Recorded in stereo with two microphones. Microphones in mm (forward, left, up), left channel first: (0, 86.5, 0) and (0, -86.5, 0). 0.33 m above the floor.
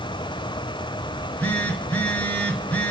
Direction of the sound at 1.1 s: 10° left (ahead or behind).